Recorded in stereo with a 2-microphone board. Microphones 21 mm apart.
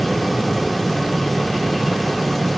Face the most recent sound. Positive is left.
No sound to turn to.